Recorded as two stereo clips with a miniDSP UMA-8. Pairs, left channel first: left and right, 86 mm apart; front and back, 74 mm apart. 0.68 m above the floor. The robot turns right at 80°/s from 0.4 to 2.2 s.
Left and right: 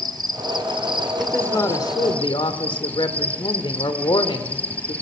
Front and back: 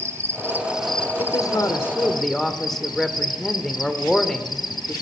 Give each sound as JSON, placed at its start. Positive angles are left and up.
{"t": 0.0, "sound": "an insect", "azimuth_deg": -125, "distance_m": 1.4}
{"t": 1.2, "sound": "a man speaking", "azimuth_deg": 5, "distance_m": 2.0}